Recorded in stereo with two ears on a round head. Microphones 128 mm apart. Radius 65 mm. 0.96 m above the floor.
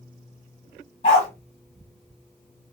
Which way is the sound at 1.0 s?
45° left (ahead or behind).